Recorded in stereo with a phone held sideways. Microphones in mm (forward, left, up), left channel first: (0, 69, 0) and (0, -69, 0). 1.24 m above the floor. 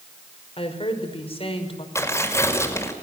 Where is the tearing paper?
20° left (ahead or behind), 5 m.